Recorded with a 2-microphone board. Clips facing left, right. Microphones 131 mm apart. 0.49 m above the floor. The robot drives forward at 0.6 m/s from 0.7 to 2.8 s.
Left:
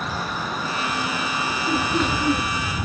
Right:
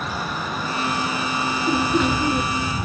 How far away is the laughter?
About 8 m.